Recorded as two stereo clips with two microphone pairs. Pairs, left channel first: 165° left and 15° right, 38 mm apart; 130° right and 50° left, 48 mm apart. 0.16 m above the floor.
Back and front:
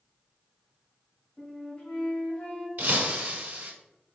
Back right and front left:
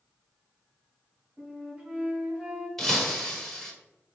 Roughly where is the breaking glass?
Ahead right.